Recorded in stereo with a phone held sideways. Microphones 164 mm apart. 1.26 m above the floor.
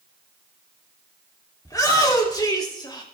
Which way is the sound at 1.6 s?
20° left (ahead or behind).